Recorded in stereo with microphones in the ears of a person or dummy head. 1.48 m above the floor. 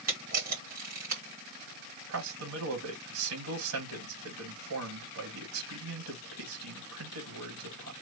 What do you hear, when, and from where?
0.1 s a camera shutter: 35° right (ahead or behind), 1.5 m
2.1 s a man speaking: 80° right, 1.8 m